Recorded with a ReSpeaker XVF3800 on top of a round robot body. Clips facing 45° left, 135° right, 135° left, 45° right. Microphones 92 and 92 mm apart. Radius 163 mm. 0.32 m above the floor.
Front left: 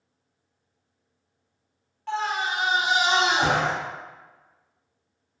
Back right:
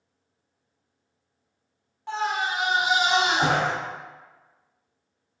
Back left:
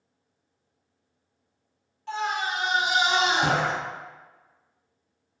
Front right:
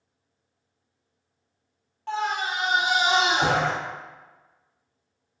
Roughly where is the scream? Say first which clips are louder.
Even, front right 1 dB; ahead right.